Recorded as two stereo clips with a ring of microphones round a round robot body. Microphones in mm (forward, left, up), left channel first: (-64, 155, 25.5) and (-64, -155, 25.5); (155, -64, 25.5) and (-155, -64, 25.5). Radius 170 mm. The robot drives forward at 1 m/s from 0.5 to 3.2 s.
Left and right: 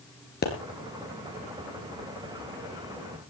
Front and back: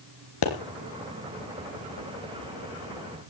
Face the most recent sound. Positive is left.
turn(degrees=90)